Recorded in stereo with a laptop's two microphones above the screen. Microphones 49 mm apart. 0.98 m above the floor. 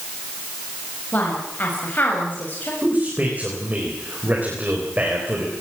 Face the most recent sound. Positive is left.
turn(degrees=-35)  # may be behind; listen again after turning